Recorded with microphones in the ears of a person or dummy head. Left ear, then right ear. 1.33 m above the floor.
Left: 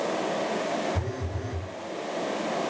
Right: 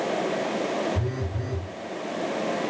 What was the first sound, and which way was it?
A phone buzzing, 45° left (ahead or behind).